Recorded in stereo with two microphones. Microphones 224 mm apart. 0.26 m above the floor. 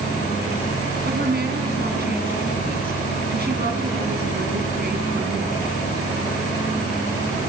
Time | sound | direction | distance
1.1 | a woman speaking | 50° right (ahead or behind) | 2.5 m